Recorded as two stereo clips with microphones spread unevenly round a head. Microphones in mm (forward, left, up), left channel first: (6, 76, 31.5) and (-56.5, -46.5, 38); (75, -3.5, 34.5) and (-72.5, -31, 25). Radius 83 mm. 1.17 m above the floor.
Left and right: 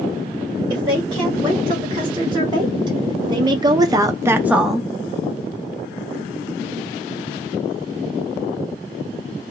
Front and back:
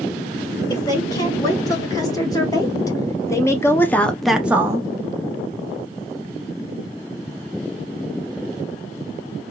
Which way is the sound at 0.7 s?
55° right.